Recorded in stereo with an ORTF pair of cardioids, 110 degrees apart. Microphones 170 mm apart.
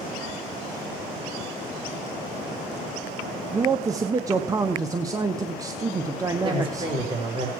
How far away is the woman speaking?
About 5 m.